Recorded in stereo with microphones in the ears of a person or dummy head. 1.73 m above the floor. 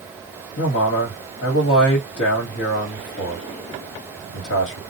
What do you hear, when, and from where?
0.6 s a man speaking: 65° left (ahead or behind), 1.4 m